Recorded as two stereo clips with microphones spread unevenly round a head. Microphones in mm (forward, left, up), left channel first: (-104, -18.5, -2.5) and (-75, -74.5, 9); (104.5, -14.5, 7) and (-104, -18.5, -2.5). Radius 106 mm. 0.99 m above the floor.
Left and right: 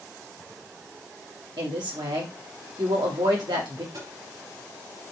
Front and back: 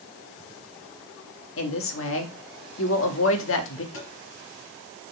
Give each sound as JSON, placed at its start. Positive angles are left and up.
{"t": 1.6, "sound": "a woman speaking", "azimuth_deg": -25, "distance_m": 1.8}
{"t": 3.9, "sound": "tapping", "azimuth_deg": -20, "distance_m": 4.5}